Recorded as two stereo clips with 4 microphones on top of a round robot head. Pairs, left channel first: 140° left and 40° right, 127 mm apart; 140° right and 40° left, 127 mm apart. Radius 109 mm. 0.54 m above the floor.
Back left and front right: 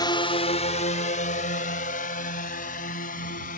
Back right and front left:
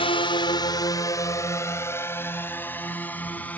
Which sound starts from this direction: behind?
A drone, at 0.0 s.